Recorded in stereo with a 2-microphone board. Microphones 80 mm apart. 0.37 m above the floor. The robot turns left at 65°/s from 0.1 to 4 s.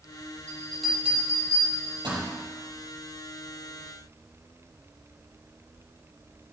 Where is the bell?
20° left (ahead or behind), 5 m; by 2.2 s 85° right, 5 m.